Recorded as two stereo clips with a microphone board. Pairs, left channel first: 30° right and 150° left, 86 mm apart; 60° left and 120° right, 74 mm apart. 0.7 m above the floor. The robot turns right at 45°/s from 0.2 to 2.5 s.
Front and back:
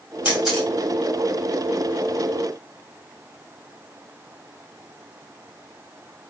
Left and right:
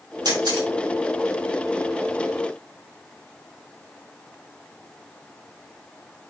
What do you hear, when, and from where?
0.2 s a camera shutter: 130° right, 4 m; by 0.7 s 110° right, 4 m